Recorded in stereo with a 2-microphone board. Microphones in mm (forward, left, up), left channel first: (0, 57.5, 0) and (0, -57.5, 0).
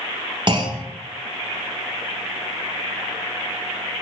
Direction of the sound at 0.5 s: 45° right (ahead or behind).